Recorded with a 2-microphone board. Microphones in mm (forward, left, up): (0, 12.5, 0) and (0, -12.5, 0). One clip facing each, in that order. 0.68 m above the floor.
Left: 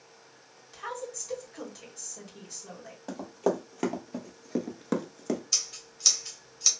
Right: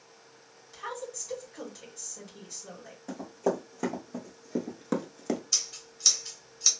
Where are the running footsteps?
50° left (ahead or behind), 1.5 m; by 5.4 s 10° right (ahead or behind), 0.6 m.